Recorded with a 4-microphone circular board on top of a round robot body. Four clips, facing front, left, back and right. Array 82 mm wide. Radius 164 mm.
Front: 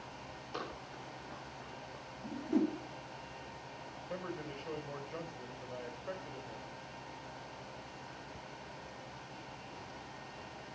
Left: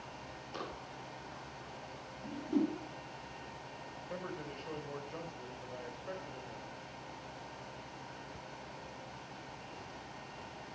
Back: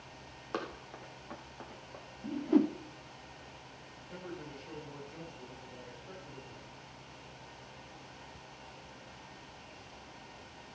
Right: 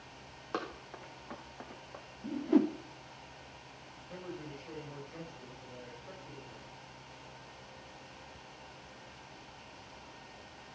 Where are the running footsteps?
130° right, 2.5 m; by 2.0 s 115° right, 4 m.